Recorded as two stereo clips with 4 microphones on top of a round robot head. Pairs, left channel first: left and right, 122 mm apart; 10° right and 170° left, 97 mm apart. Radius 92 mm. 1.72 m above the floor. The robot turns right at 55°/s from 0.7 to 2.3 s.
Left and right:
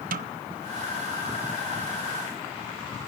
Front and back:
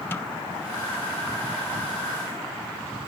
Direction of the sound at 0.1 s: 85° right.